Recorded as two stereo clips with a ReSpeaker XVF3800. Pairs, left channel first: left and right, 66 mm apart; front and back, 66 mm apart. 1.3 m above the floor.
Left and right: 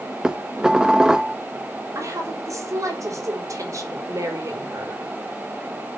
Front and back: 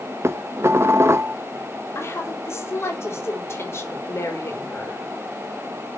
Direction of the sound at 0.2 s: 160° right.